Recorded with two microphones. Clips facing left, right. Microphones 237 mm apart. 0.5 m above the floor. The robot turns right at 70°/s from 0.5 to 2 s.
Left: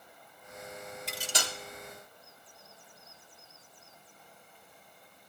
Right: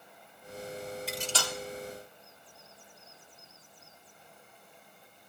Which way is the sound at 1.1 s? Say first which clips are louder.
Right 3 dB; centre (ahead or behind).